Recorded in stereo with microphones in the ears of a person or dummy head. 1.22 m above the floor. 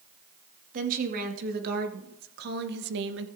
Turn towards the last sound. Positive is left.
turn(degrees=-65)  # may be behind; listen again after turning